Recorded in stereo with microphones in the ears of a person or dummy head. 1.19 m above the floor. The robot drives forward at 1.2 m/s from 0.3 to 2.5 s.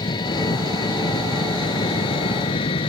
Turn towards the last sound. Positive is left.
turn(degrees=30)  # may be behind; listen again after turning